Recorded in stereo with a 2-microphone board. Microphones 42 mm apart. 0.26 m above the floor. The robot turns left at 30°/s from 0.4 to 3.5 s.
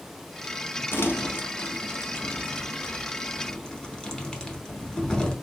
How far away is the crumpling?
About 0.8 m.